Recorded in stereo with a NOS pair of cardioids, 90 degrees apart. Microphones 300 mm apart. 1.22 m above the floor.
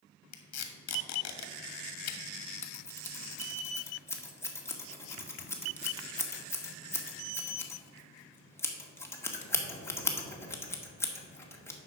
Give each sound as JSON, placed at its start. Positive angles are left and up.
{"t": 0.3, "sound": "tape being pulled", "azimuth_deg": 60, "distance_m": 1.6}
{"t": 2.6, "sound": "scissors", "azimuth_deg": 10, "distance_m": 1.8}